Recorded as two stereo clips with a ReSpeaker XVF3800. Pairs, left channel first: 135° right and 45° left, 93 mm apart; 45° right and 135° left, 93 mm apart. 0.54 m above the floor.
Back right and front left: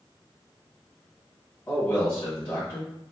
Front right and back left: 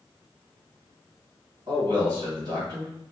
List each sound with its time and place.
1.7 s a man speaking: 170° left, 1.9 m